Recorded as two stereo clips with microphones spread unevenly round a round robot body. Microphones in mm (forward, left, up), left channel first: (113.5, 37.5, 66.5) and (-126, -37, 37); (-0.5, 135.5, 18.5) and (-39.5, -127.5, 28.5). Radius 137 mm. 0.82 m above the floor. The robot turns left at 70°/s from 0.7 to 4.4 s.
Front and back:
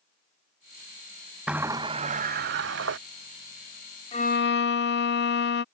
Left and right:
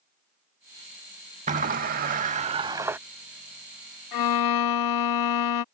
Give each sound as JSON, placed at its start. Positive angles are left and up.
{"t": 1.5, "sound": "a sliding door", "azimuth_deg": -65}
{"t": 4.1, "sound": "a violin", "azimuth_deg": 90}